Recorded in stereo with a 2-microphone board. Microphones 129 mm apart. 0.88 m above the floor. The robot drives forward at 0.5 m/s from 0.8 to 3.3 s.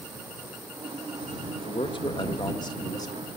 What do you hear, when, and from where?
1.6 s a man speaking: 40° left (ahead or behind), 1.0 m; by 3.3 s 25° left (ahead or behind), 1.6 m